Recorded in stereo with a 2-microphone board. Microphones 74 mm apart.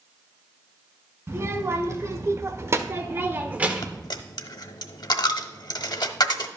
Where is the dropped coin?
70° left (ahead or behind), 0.7 m.